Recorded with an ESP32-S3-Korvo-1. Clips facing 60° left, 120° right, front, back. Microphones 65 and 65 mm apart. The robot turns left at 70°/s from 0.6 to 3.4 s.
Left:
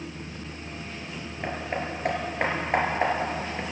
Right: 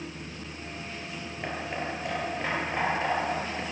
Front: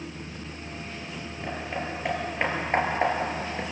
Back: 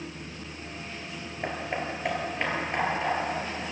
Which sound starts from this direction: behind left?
Hammering, at 1.4 s.